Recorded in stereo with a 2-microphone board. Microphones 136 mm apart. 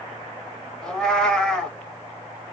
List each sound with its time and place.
0.8 s a cat meowing: 5° left (ahead or behind), 0.5 m